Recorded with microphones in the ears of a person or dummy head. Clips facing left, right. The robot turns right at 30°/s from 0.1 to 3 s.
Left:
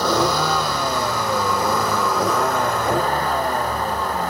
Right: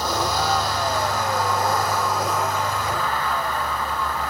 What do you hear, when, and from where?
0.0 s a vehicle: 60° left; by 4.3 s 145° left